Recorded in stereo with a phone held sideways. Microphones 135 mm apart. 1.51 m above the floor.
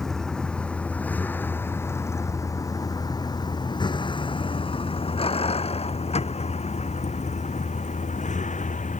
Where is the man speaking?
No man speaking in this recording.